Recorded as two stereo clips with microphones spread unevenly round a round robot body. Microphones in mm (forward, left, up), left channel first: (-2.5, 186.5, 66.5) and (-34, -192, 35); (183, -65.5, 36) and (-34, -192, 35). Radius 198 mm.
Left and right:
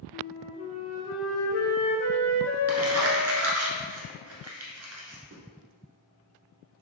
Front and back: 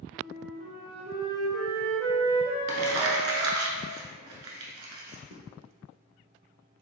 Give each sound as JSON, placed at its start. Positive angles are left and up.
{"t": 0.1, "sound": "a flute", "azimuth_deg": 135, "distance_m": 0.8}
{"t": 2.7, "sound": "crumpling", "azimuth_deg": -150, "distance_m": 1.0}